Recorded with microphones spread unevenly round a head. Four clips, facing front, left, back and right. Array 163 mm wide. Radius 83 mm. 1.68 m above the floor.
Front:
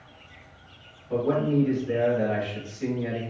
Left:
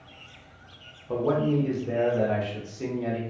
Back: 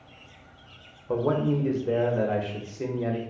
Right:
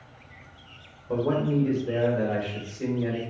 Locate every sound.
1.1 s a man speaking: 175° left, 1.0 m